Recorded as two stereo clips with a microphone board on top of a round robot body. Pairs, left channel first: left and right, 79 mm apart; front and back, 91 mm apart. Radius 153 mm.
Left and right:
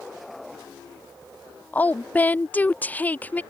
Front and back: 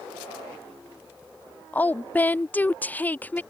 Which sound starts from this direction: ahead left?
A woman speaking, at 1.7 s.